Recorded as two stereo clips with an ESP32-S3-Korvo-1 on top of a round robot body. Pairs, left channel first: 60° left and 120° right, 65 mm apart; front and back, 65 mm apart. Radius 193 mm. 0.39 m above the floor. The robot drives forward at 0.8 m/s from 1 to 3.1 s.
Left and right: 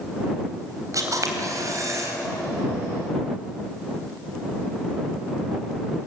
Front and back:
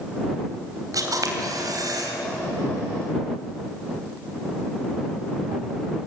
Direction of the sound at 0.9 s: 155° right.